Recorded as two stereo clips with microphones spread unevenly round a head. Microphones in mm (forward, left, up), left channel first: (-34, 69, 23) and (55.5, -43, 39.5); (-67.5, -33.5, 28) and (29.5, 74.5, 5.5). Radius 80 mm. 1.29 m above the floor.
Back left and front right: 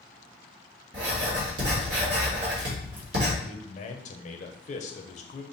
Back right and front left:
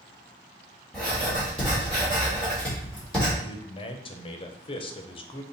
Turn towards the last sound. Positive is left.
turn(degrees=175)